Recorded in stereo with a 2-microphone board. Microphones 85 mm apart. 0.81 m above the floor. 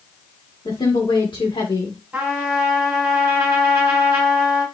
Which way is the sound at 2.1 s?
10° right (ahead or behind).